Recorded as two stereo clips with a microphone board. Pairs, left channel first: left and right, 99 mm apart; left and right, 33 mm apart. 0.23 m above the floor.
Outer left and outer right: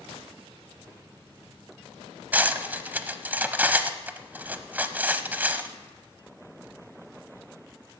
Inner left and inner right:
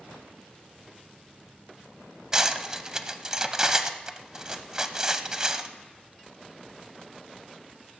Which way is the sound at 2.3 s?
20° right (ahead or behind).